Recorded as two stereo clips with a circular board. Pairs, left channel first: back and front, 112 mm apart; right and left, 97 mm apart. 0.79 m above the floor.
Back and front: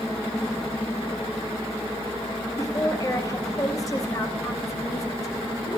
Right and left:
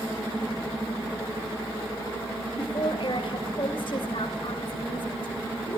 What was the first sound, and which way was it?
A woman speaking, 120° right.